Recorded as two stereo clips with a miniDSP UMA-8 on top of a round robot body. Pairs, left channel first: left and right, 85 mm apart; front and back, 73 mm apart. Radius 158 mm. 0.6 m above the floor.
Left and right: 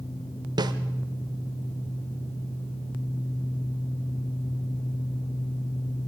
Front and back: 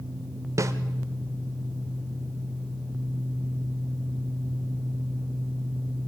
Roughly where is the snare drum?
Behind right.